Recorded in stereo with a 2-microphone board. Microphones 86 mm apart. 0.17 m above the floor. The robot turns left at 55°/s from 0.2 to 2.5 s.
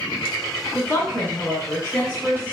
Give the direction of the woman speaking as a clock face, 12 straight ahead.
8 o'clock.